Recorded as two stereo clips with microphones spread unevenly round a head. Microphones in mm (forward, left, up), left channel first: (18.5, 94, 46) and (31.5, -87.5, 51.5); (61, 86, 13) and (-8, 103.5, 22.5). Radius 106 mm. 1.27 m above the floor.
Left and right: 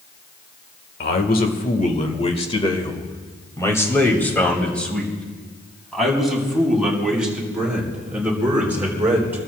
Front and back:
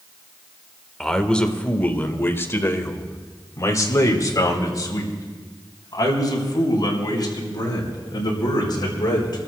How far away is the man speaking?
About 1.7 m.